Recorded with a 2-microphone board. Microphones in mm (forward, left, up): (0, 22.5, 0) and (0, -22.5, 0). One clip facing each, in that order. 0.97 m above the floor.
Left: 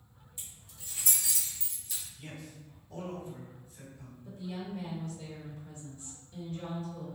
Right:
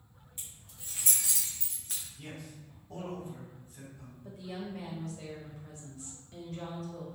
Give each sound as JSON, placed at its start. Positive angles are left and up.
{"t": 0.4, "sound": "keys jangling", "side_deg": -35, "distance_m": 1.4}
{"t": 2.2, "sound": "a man speaking", "side_deg": -50, "distance_m": 1.3}
{"t": 4.2, "sound": "a woman speaking", "side_deg": -80, "distance_m": 0.9}